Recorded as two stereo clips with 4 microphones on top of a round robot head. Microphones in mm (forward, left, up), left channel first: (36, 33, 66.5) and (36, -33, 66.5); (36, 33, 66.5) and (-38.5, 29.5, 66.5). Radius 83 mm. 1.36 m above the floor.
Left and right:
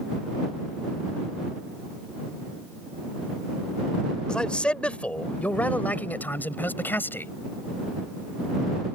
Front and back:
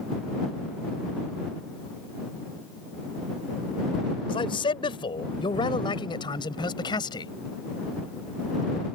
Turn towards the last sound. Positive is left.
turn(degrees=30)